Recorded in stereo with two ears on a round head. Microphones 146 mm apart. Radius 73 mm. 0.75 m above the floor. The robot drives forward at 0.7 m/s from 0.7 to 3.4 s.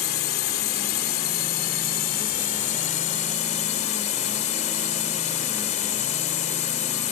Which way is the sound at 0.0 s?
65° left (ahead or behind).